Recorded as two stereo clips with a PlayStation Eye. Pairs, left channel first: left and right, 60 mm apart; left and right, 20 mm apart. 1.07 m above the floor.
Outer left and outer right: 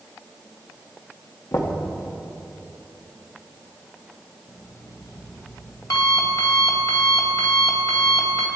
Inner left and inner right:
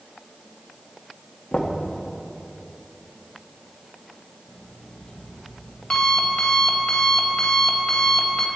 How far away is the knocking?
About 1.7 m.